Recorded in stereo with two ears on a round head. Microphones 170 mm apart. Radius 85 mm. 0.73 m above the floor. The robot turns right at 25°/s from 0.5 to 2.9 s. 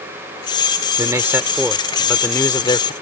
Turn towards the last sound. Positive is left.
turn(degrees=30)